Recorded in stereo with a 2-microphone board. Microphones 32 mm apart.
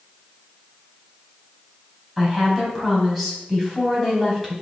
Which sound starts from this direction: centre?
A woman speaking, at 2.2 s.